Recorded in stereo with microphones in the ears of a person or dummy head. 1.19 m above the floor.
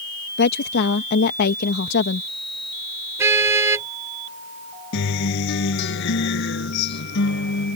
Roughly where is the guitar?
Left.